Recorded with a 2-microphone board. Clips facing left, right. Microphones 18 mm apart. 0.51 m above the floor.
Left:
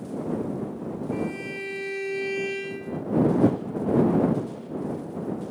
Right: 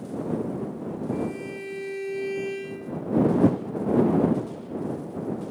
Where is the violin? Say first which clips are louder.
Left 2 dB; 20° left (ahead or behind).